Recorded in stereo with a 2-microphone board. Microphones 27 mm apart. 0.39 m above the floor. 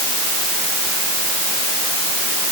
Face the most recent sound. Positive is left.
No sound to turn to.